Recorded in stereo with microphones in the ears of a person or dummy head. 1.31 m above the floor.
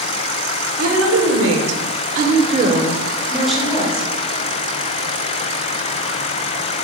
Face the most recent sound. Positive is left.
turn(degrees=10)  # may be behind; listen again after turning